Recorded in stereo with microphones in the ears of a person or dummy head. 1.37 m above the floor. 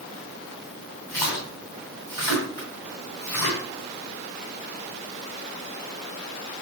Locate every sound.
1.1 s a splash: 10° left (ahead or behind), 2.5 m